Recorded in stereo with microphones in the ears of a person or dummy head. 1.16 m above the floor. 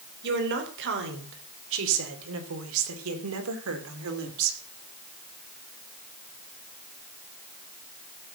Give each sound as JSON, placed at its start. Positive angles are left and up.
{"t": 0.2, "sound": "a woman speaking", "side_deg": -60, "distance_m": 3.5}